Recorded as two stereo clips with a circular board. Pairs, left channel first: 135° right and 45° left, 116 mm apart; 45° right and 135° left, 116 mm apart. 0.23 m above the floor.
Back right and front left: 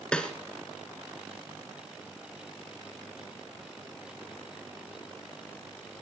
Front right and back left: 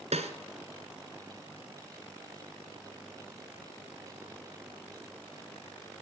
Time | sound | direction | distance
0.1 | a snare drum | 145° left | 1.7 m